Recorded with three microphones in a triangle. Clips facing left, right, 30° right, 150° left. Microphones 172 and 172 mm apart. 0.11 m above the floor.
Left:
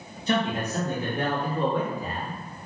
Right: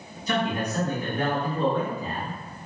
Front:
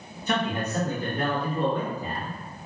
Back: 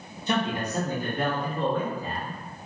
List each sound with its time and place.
0.3 s a man speaking: 115° left, 1.4 m; by 2.4 s 15° right, 1.4 m